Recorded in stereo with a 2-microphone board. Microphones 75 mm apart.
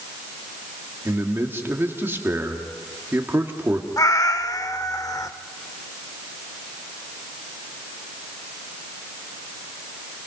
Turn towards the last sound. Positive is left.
turn(degrees=50)  # may be behind; listen again after turning